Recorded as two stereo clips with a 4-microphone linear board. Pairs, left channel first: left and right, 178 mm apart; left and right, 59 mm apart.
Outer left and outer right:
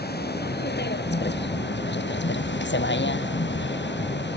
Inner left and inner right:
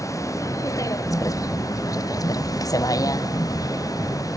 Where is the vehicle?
65° left (ahead or behind); by 4.4 s 75° left (ahead or behind).